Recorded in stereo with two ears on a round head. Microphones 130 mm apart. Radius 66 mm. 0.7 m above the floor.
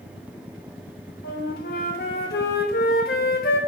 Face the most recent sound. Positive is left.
turn(degrees=75)  # may be behind; listen again after turning